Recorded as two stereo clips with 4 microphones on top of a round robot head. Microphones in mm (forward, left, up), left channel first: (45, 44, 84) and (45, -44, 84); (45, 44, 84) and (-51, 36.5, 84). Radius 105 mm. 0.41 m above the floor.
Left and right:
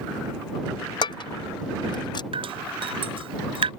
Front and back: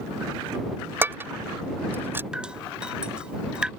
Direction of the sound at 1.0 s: 120° left.